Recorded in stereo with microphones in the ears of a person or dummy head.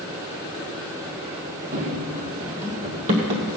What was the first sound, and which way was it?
Running footsteps, 45° right (ahead or behind).